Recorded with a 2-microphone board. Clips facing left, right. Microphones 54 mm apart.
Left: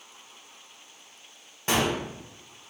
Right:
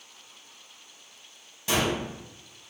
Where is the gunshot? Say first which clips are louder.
Left 1 dB; 40° left (ahead or behind), 0.7 m.